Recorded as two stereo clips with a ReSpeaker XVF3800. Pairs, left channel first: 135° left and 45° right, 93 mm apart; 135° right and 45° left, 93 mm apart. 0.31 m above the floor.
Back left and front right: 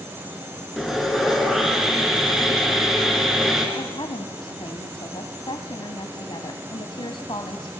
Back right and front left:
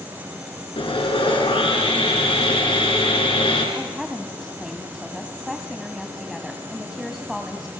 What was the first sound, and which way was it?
Sawing, 135° right.